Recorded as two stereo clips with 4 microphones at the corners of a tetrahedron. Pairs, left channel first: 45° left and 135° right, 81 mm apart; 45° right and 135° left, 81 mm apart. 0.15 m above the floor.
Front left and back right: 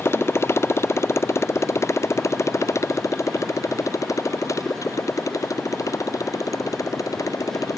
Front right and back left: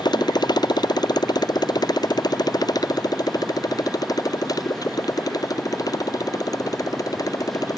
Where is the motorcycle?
15° right; by 7.8 s straight ahead.